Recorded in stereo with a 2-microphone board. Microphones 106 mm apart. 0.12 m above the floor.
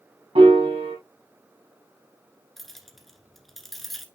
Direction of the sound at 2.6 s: Centre (ahead or behind).